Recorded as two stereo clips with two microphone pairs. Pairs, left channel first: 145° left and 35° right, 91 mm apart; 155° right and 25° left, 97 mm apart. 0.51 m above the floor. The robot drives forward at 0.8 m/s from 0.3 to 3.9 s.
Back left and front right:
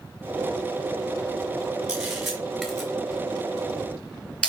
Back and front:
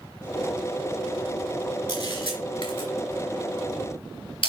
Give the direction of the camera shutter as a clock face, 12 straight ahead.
4 o'clock.